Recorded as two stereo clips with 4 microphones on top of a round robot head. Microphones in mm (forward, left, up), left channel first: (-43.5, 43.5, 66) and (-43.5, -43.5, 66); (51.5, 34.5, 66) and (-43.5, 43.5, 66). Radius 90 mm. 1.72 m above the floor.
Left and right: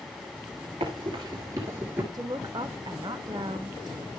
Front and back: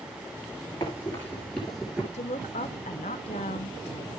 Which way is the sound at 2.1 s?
30° right.